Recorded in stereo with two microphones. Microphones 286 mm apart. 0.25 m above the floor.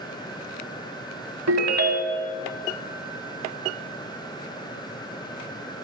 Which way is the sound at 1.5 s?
60° right (ahead or behind).